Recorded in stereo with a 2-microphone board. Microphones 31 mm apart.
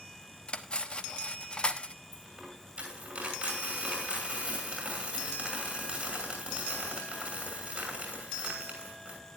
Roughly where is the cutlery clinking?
Left.